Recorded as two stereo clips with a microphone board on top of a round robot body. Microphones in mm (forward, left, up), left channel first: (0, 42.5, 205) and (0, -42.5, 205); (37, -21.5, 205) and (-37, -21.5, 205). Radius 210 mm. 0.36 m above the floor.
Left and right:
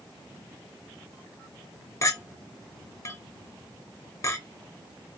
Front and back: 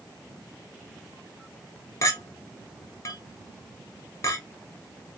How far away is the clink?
About 0.8 m.